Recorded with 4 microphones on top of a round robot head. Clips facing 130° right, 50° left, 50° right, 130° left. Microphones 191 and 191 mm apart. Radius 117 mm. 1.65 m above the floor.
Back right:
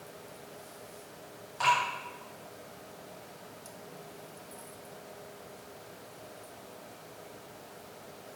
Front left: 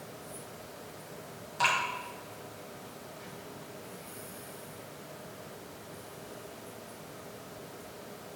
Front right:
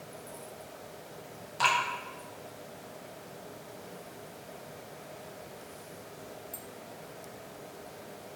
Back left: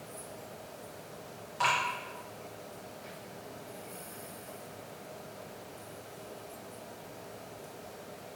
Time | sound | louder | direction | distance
1.6 | dripping | back right 3 dB, front right 2 dB | straight ahead | 3 m